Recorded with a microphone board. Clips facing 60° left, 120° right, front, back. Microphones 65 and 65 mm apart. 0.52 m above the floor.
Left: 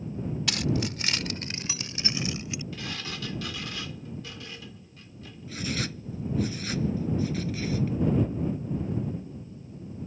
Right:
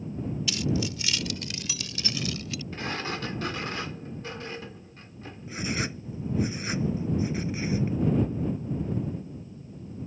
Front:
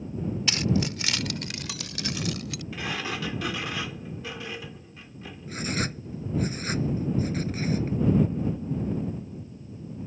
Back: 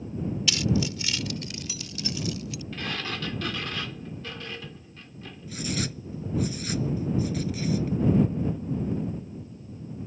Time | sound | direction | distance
0.5 | keys jangling | 50° left | ?
2.7 | a sliding door | 80° right | ?
5.5 | writing | 50° right | ?